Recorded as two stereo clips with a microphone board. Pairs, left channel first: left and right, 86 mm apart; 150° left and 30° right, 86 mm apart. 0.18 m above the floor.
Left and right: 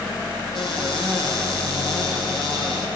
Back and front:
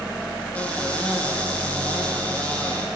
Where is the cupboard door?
75° left, 6.5 m.